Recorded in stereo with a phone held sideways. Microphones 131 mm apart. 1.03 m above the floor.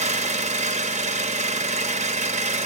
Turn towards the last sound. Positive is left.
turn(degrees=-55)  # may be behind; listen again after turning